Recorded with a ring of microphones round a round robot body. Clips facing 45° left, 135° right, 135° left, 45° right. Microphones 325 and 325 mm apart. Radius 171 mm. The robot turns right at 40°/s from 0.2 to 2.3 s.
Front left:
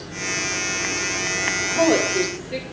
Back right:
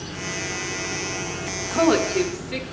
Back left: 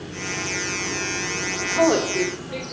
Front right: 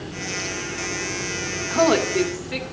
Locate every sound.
1.7 s a woman speaking: 95° right, 2 m; by 2.6 s 70° right, 2 m